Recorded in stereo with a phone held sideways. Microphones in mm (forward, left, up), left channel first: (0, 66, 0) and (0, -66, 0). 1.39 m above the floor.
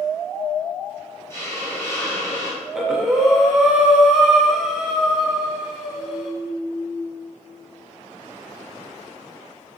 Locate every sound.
1.3 s a hiss: 20° left (ahead or behind), 1.3 m
2.6 s breathing: 5° right (ahead or behind), 0.7 m